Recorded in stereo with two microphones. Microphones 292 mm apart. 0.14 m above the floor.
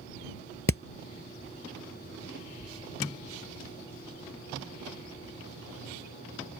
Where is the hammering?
50° left (ahead or behind).